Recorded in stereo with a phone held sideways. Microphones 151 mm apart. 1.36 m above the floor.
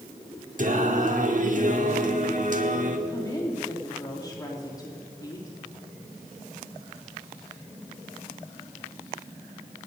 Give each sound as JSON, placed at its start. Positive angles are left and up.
{"t": 0.6, "sound": "singing", "side_deg": -60, "distance_m": 1.4}
{"t": 3.1, "sound": "a woman speaking", "side_deg": 25, "distance_m": 3.0}